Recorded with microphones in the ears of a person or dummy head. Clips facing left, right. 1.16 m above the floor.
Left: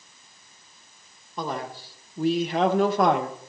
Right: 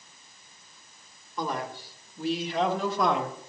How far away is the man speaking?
About 1.1 m.